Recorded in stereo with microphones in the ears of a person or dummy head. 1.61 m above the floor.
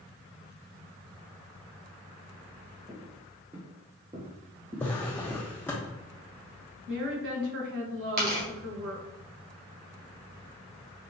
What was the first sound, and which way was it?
Footsteps, 15° right (ahead or behind).